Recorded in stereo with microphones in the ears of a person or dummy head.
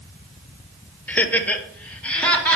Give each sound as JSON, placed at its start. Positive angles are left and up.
{"t": 1.1, "sound": "laughter", "side_deg": 5, "distance_m": 0.8}